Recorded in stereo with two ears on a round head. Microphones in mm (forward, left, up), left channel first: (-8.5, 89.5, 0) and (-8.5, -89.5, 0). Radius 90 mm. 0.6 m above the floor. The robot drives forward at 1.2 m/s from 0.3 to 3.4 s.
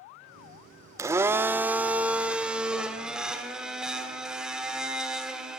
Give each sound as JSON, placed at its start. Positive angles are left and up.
{"t": 1.0, "sound": "a blender", "side_deg": -15, "distance_m": 0.9}